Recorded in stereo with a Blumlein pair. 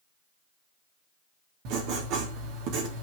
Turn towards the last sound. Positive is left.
turn(degrees=-40)